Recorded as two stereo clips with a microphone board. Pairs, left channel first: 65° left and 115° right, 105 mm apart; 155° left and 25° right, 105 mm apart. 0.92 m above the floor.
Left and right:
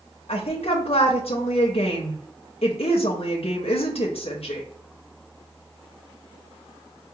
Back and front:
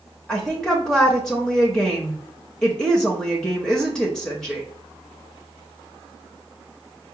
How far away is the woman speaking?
About 0.7 m.